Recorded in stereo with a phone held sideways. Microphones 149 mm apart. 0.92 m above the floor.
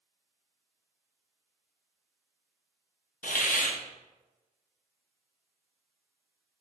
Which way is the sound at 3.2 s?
65° left (ahead or behind).